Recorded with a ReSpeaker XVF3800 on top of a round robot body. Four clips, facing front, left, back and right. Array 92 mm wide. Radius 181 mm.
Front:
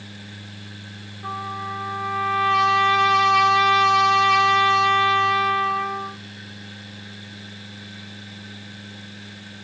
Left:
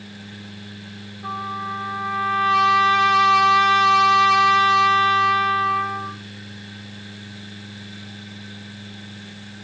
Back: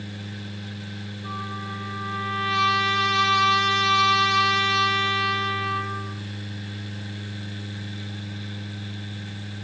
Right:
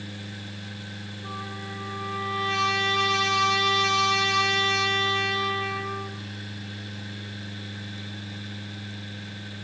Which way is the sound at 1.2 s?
40° left.